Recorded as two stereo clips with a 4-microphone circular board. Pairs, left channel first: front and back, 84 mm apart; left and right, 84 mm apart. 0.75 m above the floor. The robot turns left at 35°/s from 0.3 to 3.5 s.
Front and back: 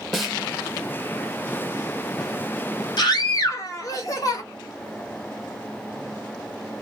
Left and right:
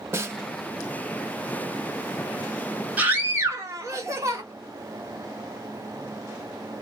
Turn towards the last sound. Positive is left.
turn(degrees=-40)